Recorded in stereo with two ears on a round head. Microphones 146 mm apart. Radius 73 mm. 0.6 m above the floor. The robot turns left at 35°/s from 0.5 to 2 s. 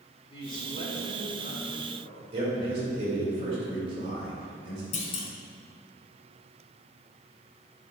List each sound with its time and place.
0.3 s a man speaking: 145° left, 2 m; by 2.2 s 90° left, 2 m
2.3 s a man speaking: 35° right (ahead or behind), 2.5 m
4.9 s a clunk: 45° left (ahead or behind), 1.3 m